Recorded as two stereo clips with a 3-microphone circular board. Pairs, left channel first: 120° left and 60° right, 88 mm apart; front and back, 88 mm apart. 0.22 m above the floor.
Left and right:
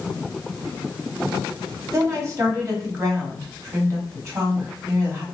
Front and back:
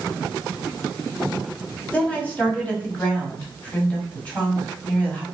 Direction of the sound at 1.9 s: 55° right.